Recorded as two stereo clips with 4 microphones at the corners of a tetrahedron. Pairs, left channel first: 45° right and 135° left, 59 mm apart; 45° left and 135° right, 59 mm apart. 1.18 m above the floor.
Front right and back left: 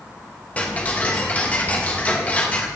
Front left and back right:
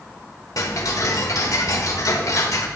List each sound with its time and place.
0.6 s ticking: 20° left, 1.0 m